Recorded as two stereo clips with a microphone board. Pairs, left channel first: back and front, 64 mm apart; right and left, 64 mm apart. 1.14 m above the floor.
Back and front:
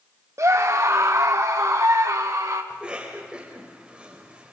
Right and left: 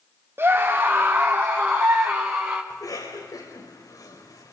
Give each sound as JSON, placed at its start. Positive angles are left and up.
{"t": 0.4, "sound": "a scream", "azimuth_deg": 35, "distance_m": 1.2}
{"t": 2.7, "sound": "a cough", "azimuth_deg": -75, "distance_m": 5.5}